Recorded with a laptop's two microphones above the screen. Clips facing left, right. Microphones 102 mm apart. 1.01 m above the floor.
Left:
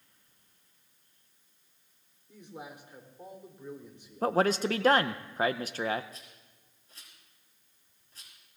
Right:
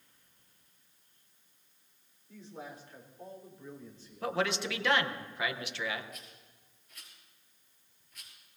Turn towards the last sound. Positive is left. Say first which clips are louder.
# right 1 dB
turn(degrees=35)  # may be behind; listen again after turning